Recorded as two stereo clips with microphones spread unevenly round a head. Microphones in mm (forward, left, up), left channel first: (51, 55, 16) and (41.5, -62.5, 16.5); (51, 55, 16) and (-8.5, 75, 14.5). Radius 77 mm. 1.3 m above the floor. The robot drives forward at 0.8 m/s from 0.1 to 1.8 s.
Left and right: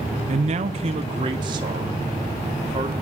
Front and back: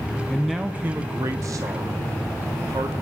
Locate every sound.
0.3 s a man speaking: 95° right, 0.7 m; by 3.0 s 155° right, 1.4 m